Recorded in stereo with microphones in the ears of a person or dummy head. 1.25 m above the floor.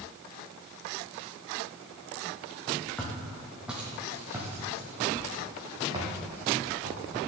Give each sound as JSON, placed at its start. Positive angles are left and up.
{"t": 3.0, "sound": "footsteps", "side_deg": 5, "distance_m": 2.0}